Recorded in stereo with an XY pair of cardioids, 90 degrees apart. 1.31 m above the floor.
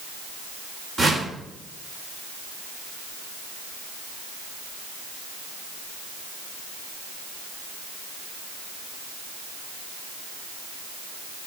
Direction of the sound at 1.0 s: 35° right.